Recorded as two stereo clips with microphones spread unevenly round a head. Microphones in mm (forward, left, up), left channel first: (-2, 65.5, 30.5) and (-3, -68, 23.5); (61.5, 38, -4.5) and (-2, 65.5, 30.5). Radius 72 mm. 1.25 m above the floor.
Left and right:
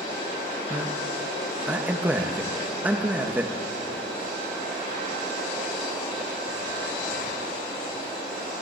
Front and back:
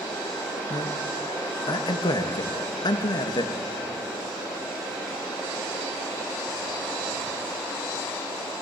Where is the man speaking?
10° right, 1.4 m.